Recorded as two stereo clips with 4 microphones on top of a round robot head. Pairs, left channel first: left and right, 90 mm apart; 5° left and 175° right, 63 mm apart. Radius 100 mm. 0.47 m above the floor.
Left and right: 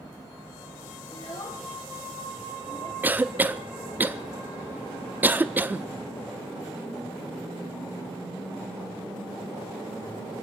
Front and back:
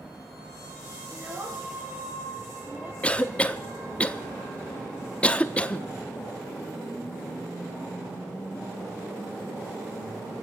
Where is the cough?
45° right, 0.7 m.